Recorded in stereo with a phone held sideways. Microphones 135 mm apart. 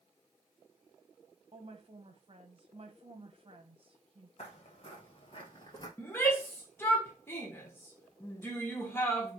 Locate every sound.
1.5 s a woman speaking: 45° right (ahead or behind), 1.2 m
4.4 s footsteps: 50° left (ahead or behind), 2 m; by 5.9 s 35° left (ahead or behind), 1.7 m
6.0 s a shout: 15° left (ahead or behind), 1.2 m